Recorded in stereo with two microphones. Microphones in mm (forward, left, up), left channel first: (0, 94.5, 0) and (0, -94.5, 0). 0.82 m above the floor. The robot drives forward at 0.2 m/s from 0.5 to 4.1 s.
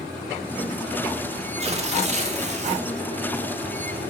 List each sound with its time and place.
1.6 s tearing paper: 35° right (ahead or behind), 0.5 m